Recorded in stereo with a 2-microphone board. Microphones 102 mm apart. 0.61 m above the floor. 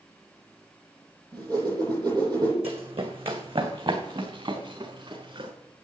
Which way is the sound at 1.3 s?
45° right (ahead or behind).